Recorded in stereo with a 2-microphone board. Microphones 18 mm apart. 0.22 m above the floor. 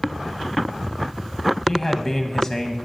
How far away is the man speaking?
About 1.1 m.